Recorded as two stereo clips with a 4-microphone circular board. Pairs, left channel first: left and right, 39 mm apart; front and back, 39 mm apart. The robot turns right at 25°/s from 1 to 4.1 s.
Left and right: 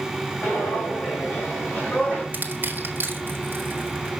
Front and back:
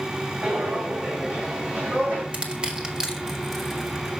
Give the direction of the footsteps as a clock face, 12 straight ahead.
8 o'clock.